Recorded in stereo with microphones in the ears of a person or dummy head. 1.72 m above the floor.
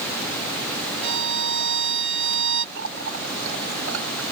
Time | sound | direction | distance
1.0 | a violin | 70° right (ahead or behind) | ?
2.8 | a running tap | 75° right (ahead or behind) | ?